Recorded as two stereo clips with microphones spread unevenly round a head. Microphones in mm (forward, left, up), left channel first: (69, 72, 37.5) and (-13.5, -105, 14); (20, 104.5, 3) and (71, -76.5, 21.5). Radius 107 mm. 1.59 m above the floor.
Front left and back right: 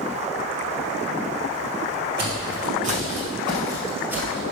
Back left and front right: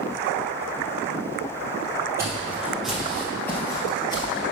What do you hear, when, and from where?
2.2 s footsteps: 135° right, 1.9 m; by 4.4 s 145° left, 1.7 m